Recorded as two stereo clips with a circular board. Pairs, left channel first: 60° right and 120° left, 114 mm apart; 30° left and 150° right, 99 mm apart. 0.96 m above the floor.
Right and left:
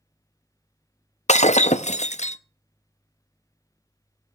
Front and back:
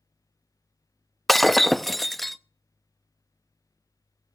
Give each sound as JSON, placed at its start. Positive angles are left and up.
{"t": 1.3, "sound": "breaking glass", "azimuth_deg": -60, "distance_m": 0.7}